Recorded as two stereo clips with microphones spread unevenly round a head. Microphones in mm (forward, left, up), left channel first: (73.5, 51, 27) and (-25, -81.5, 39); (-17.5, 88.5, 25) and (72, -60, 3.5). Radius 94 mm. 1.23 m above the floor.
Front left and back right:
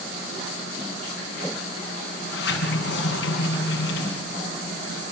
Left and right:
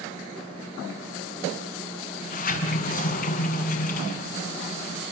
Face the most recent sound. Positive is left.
turn(degrees=85)